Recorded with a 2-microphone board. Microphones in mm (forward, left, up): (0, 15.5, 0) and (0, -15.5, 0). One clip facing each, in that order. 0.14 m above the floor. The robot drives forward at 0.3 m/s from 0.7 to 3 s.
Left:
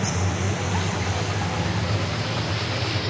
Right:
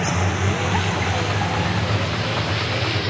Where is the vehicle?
40° right (ahead or behind); by 3.1 s 25° right (ahead or behind).